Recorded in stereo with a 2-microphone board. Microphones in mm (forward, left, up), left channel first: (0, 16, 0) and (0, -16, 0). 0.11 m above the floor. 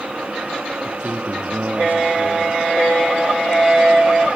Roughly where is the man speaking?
Right.